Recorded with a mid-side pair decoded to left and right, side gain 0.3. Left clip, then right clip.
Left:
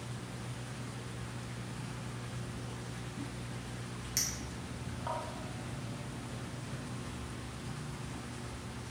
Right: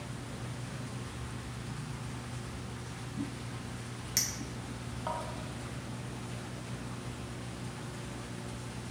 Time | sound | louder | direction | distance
4.2 | a clink | right 2 dB | 30° right | 1.8 m